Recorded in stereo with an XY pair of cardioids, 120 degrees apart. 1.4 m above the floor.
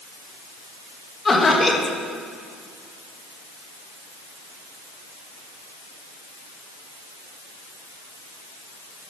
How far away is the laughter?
About 2 m.